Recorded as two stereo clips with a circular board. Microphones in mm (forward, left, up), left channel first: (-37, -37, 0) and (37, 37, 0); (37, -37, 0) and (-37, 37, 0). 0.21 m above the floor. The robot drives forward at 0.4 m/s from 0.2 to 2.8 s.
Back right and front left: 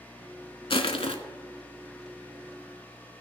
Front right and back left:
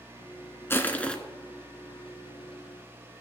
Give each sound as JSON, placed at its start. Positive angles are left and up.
{"t": 0.7, "sound": "crushing", "azimuth_deg": -110, "distance_m": 0.7}